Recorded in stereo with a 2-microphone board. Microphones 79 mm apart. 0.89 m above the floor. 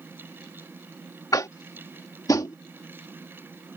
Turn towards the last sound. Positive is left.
turn(degrees=50)  # may be behind; listen again after turning